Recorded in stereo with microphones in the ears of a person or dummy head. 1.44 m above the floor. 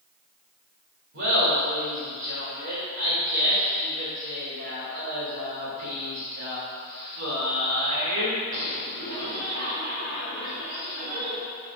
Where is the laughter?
60° right (ahead or behind), 2.5 m.